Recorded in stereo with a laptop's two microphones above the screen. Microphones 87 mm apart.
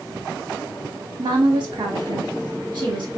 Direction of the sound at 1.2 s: 60° right (ahead or behind).